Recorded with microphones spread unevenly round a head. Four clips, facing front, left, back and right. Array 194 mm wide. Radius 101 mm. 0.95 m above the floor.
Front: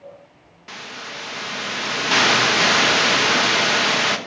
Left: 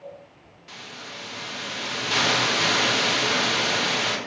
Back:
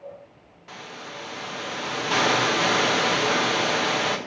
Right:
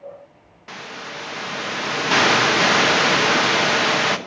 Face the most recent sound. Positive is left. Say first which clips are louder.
# right 7 dB, front 3 dB
turn(degrees=-60)